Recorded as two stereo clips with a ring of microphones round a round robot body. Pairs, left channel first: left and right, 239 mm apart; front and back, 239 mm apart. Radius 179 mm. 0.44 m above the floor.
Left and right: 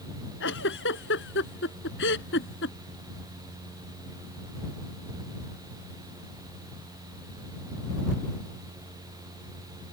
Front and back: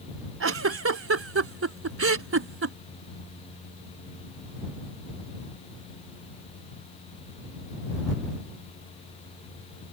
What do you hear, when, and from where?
0.4 s a giggle: 150° left